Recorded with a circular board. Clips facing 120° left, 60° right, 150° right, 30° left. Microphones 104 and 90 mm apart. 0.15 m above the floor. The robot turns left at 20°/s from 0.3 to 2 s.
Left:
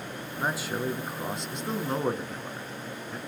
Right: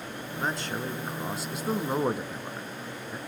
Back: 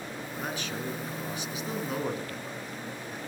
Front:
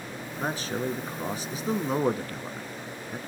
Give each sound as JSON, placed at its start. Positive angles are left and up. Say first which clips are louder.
{"t": 0.4, "sound": "a man speaking", "louder": "left 2 dB, front 6 dB", "azimuth_deg": 45, "distance_m": 1.6}